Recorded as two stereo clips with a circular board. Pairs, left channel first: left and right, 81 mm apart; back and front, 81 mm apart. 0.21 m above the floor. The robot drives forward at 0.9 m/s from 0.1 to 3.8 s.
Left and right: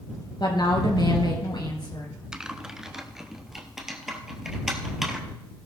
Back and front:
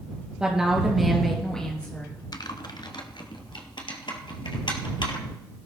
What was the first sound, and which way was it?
A woman speaking, 75° left.